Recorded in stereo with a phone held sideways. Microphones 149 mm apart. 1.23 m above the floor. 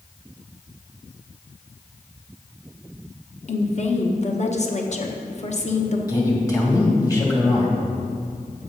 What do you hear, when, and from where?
3.5 s a woman speaking: 50° left (ahead or behind), 1.1 m
6.1 s a man speaking: 25° left (ahead or behind), 2.5 m